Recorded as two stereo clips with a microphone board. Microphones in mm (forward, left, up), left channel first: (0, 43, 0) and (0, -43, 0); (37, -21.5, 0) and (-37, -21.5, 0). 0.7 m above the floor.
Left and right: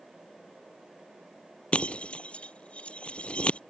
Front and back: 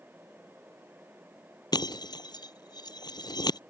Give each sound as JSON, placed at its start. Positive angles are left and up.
{"t": 1.7, "sound": "breaking glass", "azimuth_deg": 15}